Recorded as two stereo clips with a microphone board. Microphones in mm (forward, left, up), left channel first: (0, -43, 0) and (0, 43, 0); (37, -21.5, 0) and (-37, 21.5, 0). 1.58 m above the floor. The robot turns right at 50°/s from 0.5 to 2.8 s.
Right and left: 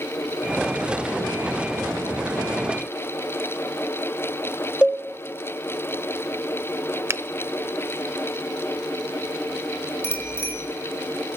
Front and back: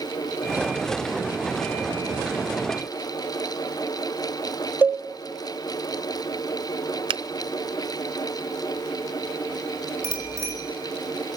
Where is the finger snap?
150° left, 0.5 m.